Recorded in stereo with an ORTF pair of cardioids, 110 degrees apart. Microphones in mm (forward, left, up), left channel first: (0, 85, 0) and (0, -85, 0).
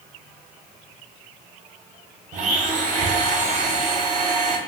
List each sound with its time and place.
2.3 s a blender: 50° right, 0.6 m